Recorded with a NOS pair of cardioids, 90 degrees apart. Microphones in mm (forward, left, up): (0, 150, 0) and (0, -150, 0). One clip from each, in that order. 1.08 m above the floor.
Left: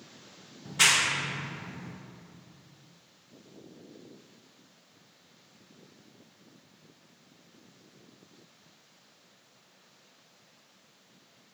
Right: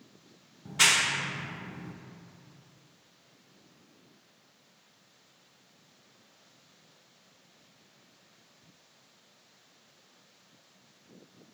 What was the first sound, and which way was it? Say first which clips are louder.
A clap: even; 5° right.